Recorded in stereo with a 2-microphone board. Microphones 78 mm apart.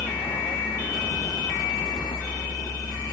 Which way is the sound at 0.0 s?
85° left.